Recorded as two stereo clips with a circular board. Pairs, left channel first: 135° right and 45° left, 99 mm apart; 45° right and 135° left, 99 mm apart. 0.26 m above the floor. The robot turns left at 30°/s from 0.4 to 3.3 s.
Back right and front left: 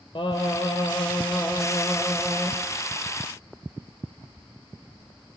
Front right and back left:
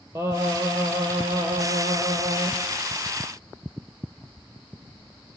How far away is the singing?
About 4.5 m.